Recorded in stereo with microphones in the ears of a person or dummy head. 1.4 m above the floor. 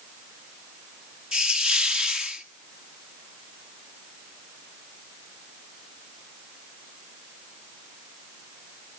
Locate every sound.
1.3 s a hiss: 5° right (ahead or behind), 0.9 m